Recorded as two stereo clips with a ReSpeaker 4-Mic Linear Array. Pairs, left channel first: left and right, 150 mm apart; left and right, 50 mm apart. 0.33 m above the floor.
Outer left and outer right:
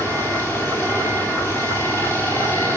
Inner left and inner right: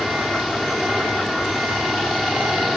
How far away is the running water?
About 5 m.